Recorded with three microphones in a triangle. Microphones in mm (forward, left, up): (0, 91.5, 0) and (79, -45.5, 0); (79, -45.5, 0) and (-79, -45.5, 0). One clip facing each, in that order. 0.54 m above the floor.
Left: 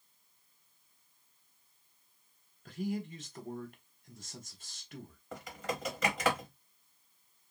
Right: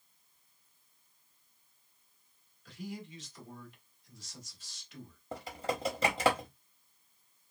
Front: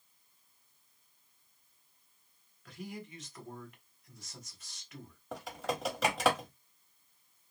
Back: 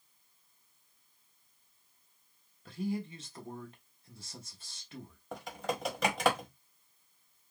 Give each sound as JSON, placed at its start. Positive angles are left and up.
{"t": 2.6, "sound": "a man speaking", "azimuth_deg": 130, "distance_m": 1.4}
{"t": 5.3, "sound": "typing on a keyboard", "azimuth_deg": -85, "distance_m": 1.5}